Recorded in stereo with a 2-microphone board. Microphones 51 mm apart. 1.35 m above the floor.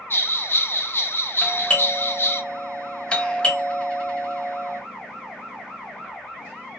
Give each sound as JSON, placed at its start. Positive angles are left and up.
{"t": 0.1, "sound": "a bell", "side_deg": 50, "distance_m": 0.5}
{"t": 1.4, "sound": "a doorbell", "side_deg": 20, "distance_m": 0.9}